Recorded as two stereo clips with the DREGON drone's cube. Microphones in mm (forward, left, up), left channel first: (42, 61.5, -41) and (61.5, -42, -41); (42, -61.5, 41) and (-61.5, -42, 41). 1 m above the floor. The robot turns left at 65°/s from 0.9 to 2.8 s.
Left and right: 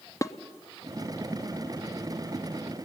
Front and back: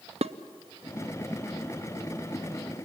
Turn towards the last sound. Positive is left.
turn(degrees=35)